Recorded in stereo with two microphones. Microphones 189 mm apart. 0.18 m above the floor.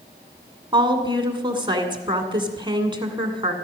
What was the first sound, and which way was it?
A woman speaking, 25° right (ahead or behind).